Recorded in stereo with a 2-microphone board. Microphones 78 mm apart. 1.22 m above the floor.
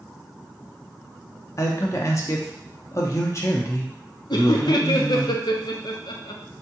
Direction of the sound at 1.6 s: 40° left (ahead or behind).